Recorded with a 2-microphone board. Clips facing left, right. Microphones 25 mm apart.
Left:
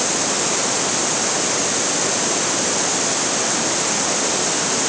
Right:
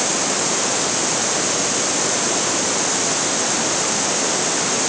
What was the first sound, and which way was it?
Only background noise.